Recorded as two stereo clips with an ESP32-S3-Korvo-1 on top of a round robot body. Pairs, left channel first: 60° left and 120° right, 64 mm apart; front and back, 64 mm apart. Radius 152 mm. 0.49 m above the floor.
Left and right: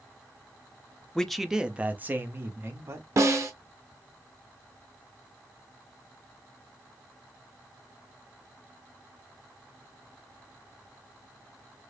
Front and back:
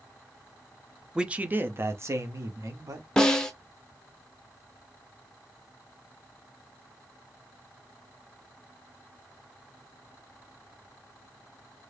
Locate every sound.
1.1 s a man speaking: 125° left, 0.8 m; by 3.1 s 160° right, 1.6 m
3.2 s a snare drum: 80° right, 0.8 m